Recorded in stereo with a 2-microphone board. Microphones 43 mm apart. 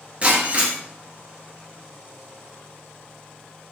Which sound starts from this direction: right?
Breaking glass, at 0.2 s.